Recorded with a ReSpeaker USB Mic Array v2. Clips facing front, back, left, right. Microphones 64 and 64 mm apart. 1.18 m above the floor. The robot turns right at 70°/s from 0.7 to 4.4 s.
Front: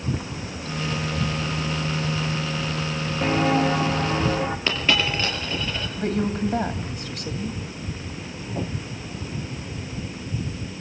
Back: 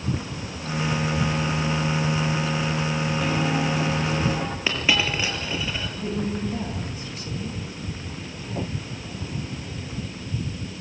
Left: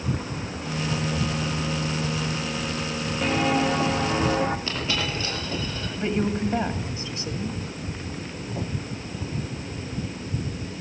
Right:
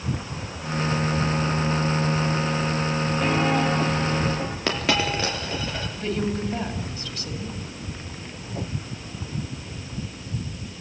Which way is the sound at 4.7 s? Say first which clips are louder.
Back 2 dB, right 5 dB; 100° right.